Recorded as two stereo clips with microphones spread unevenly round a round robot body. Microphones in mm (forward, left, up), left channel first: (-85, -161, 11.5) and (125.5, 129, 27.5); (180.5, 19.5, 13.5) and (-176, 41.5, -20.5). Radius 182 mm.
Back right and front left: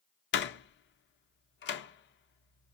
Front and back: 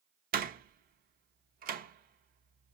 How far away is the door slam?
About 0.6 m.